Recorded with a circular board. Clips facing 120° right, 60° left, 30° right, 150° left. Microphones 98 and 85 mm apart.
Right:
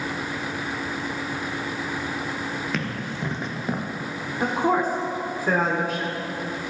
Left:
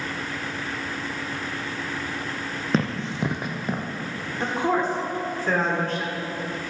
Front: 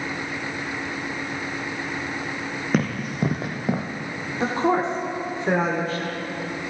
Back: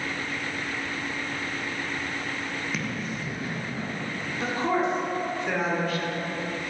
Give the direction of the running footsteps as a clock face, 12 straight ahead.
12 o'clock.